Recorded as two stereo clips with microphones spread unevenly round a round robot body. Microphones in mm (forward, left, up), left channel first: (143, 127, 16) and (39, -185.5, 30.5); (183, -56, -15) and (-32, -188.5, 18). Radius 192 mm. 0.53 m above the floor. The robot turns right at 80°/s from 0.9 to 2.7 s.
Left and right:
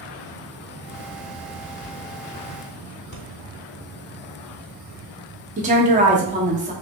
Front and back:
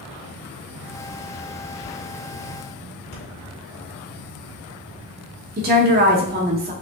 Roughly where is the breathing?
Ahead.